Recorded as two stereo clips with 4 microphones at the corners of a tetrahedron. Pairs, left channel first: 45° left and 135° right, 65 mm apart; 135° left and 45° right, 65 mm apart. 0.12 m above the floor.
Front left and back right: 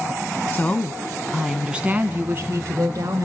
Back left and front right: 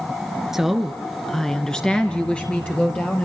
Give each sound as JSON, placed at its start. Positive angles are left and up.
{"t": 0.5, "sound": "a woman speaking", "azimuth_deg": 40, "distance_m": 1.3}